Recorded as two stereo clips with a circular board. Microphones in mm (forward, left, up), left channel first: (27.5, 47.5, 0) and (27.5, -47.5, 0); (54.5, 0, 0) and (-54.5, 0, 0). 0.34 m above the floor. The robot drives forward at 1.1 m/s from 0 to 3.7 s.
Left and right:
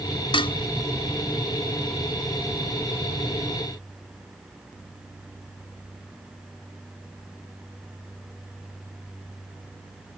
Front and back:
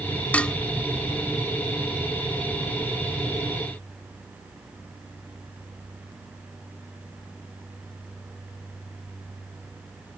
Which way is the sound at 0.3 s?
75° left.